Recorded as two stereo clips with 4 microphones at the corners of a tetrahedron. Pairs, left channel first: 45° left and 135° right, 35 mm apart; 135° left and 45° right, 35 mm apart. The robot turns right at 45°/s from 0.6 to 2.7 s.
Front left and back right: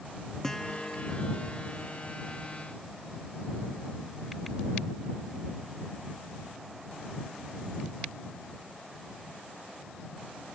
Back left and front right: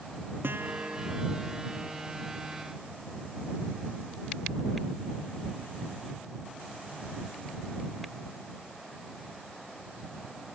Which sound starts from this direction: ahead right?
A guitar, at 0.4 s.